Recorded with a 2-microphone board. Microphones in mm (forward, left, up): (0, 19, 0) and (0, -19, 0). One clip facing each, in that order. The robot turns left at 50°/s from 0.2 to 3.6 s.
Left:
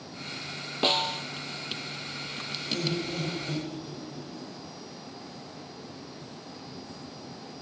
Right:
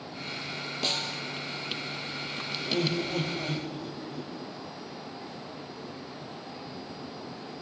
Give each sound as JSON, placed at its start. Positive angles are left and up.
{"t": 0.8, "sound": "a snare drum", "side_deg": 35, "distance_m": 0.6}
{"t": 2.6, "sound": "laughter", "azimuth_deg": -30, "distance_m": 6.5}